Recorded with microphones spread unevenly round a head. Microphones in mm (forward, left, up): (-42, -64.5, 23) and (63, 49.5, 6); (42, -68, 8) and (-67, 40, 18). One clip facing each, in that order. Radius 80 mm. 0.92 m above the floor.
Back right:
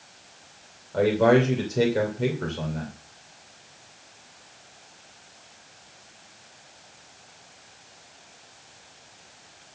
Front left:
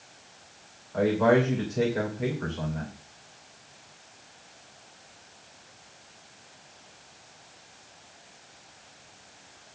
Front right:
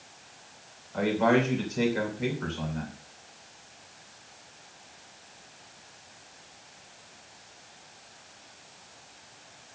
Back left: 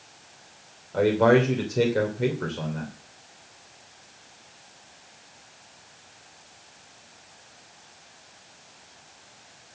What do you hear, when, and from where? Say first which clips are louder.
0.9 s a man speaking: back right 3 dB, back left 5 dB; 175° left, 3 m